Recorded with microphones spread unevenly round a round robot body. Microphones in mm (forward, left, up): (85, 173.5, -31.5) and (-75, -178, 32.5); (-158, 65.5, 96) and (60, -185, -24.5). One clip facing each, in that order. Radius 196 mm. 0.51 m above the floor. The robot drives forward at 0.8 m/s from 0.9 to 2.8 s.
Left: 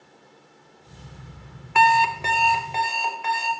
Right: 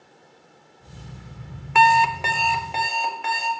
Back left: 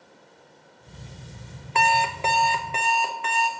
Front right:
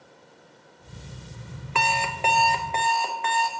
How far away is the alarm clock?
About 0.6 m.